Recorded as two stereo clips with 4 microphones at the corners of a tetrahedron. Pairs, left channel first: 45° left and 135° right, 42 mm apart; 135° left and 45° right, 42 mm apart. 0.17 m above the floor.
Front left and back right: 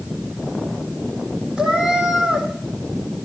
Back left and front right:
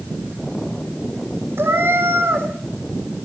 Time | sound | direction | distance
1.6 | a cat meowing | 65° right | 3 m